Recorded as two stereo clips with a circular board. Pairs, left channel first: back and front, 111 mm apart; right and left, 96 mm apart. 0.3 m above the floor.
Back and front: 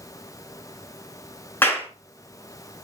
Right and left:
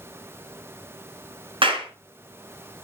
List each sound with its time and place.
1.6 s a clap: 110° left, 3 m